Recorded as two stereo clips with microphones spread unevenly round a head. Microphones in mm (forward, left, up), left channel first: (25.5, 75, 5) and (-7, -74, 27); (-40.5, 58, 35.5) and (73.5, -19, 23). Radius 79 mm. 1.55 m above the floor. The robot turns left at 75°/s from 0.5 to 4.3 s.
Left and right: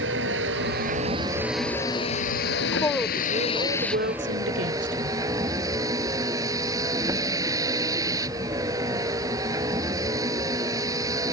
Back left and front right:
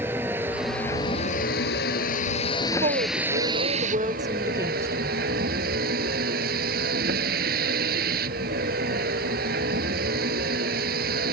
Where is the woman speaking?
20° left; by 5.2 s 105° right.